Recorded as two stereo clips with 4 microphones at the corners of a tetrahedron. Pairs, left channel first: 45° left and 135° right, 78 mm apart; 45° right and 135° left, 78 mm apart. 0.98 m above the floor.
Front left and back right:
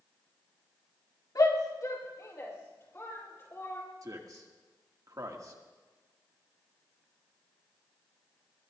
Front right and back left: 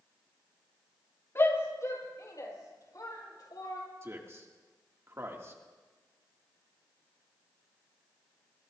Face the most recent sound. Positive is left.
turn(degrees=-170)